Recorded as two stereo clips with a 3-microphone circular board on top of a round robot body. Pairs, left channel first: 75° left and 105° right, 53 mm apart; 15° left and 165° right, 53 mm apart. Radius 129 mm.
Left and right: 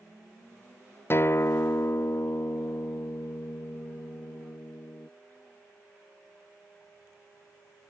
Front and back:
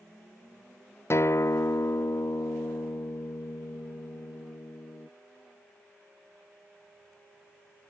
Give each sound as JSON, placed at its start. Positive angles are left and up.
{"t": 1.1, "sound": "a guitar", "azimuth_deg": 40}